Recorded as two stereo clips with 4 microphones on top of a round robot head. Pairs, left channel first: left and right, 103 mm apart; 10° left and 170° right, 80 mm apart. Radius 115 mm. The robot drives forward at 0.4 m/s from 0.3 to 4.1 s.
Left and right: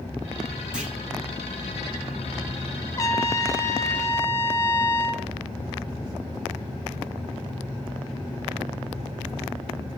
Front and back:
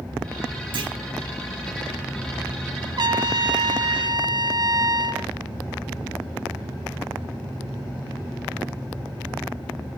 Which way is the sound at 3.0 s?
155° left.